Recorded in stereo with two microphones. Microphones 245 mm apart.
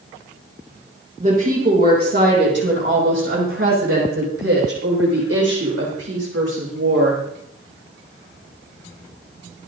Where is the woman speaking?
30° right (ahead or behind), 6 m; by 7.2 s 80° right, 9.5 m.